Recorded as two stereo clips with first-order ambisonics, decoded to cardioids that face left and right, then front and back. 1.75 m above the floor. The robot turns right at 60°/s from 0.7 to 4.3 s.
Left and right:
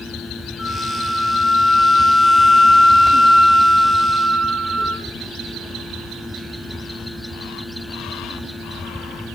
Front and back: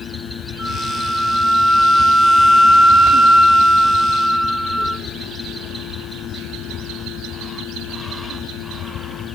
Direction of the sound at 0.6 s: 35° left.